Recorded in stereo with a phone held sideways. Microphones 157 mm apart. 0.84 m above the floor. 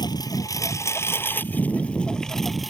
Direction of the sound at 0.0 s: 25° left (ahead or behind).